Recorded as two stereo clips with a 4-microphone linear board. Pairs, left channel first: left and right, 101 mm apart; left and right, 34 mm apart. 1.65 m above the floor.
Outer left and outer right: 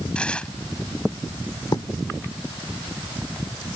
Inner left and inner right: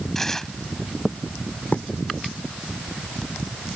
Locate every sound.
0.1 s tearing paper: 10° left (ahead or behind)
1.7 s writing: 50° left (ahead or behind)